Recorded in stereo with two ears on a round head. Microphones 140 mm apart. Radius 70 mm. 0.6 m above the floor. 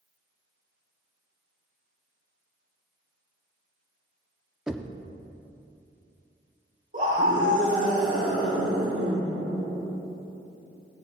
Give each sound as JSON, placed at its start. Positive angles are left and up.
{"t": 4.7, "sound": "knocking", "side_deg": -5, "distance_m": 0.5}
{"t": 6.9, "sound": "a scream", "side_deg": -50, "distance_m": 1.8}